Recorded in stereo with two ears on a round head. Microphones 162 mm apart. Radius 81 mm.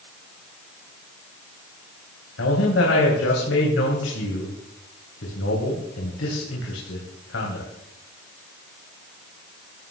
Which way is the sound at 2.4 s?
80° left.